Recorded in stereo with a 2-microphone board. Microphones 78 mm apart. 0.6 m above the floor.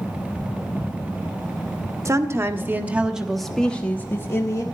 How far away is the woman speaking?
About 1.2 m.